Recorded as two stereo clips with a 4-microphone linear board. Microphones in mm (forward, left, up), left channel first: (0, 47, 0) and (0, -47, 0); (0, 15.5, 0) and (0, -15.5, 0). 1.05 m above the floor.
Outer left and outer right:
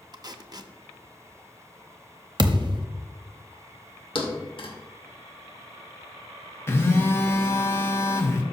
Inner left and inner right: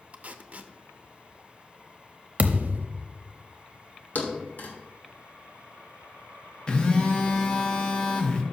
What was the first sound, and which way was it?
Tape being pulled, 45° right (ahead or behind).